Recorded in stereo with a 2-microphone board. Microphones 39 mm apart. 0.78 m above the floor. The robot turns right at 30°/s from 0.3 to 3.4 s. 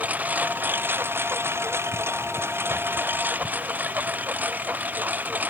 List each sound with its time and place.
0.0 s a lawn mower: 140° right; by 5.5 s 45° right